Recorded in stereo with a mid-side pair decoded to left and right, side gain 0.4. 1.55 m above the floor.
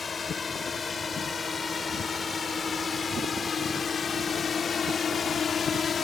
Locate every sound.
0.0 s a drone: 35° left; by 6.0 s 45° left